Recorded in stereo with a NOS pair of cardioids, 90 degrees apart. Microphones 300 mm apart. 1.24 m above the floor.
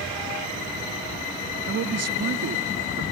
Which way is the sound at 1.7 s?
50° right.